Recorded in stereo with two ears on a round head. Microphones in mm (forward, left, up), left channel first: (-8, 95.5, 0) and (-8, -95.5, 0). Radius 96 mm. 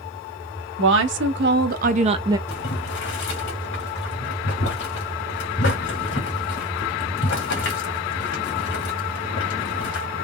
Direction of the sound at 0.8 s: 65° right (ahead or behind).